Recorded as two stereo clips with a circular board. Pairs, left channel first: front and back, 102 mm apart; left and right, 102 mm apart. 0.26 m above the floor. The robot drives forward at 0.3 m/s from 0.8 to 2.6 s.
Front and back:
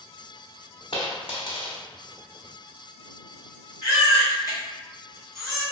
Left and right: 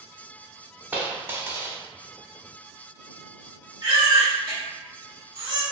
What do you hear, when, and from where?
0.9 s a dropped coin: 20° right, 0.7 m; by 1.8 s 30° right, 0.5 m
3.8 s a baby crying: 125° right, 1.9 m